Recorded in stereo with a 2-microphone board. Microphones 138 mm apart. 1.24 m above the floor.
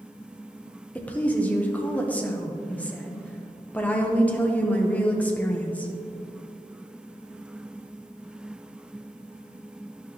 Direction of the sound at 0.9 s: 10° left (ahead or behind).